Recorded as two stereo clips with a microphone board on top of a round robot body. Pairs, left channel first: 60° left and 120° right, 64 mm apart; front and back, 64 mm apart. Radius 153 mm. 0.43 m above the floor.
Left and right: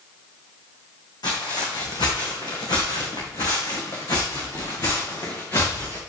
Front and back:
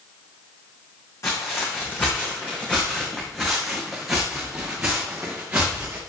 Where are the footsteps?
50° left, 2.5 m; by 6.0 s 110° left, 4 m.